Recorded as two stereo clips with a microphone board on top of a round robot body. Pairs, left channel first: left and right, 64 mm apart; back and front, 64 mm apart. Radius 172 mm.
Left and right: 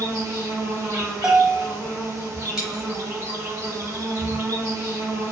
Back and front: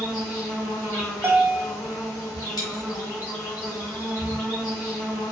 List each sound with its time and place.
0.0 s an insect: 145° right, 1.4 m
1.2 s a bell: 20° right, 0.7 m
2.6 s a dropped coin: 170° right, 1.1 m